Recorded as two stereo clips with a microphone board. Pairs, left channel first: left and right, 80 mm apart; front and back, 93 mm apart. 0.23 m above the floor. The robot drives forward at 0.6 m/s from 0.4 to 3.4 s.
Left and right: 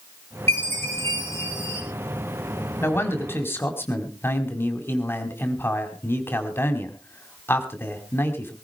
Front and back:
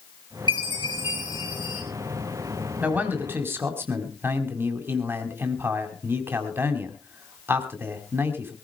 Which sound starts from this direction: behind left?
A man speaking, at 2.8 s.